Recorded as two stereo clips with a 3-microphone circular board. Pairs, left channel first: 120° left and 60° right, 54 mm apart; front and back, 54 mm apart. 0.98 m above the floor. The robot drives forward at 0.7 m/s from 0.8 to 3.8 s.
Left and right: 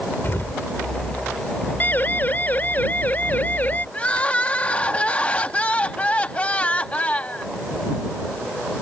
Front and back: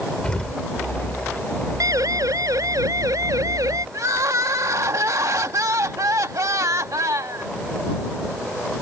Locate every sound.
0.2 s an explosion: 75° left
1.8 s a siren: 175° left; by 3.8 s straight behind
3.9 s crying: 175° right